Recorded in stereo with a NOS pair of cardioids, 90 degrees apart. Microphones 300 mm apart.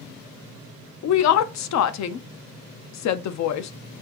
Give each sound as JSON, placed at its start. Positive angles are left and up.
{"t": 1.0, "sound": "a woman speaking", "azimuth_deg": 65, "distance_m": 0.6}